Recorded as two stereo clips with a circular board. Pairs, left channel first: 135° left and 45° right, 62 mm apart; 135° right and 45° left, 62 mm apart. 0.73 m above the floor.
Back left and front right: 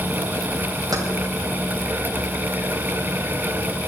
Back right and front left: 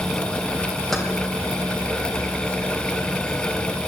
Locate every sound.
0.9 s keys jangling: 50° right, 3.5 m